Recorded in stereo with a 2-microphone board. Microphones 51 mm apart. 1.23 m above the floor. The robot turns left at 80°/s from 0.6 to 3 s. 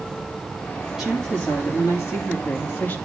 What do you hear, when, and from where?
1.0 s a woman speaking: 175° right, 3 m; by 3.0 s 25° left, 3 m